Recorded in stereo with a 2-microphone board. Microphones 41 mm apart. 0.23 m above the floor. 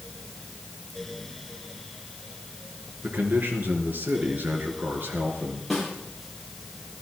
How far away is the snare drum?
About 6.5 m.